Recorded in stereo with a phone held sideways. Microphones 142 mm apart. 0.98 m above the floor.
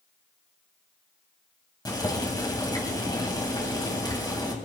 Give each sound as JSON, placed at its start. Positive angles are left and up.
{"t": 1.9, "sound": "boiling", "side_deg": 25, "distance_m": 3.0}